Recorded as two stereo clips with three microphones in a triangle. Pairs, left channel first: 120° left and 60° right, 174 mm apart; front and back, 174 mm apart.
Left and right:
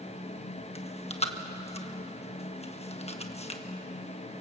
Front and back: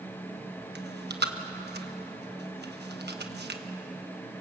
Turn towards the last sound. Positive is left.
turn(degrees=170)